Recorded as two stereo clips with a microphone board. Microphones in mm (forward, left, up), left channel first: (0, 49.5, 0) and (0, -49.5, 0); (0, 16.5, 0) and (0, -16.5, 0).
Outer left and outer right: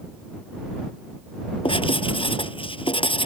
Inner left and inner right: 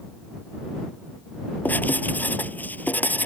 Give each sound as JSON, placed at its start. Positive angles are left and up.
{"t": 1.6, "sound": "writing", "side_deg": 65}